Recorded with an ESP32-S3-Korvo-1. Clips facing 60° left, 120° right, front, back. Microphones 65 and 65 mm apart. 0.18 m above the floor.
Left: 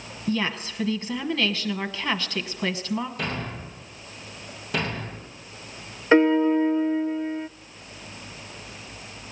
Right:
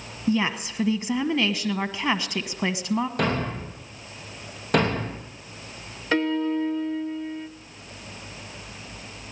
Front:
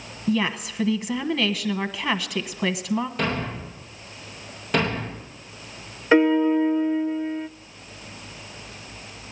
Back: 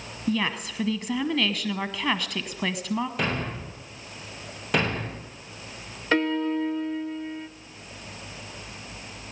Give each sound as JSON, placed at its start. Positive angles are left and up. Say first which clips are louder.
{"t": 0.3, "sound": "a woman speaking", "louder": "right 3 dB, front 3 dB", "azimuth_deg": -80, "distance_m": 1.1}
{"t": 3.2, "sound": "a thud", "louder": "right 6 dB, front 2 dB", "azimuth_deg": -90, "distance_m": 3.5}
{"t": 6.1, "sound": "a piano", "louder": "left 6 dB, front 7 dB", "azimuth_deg": 50, "distance_m": 0.5}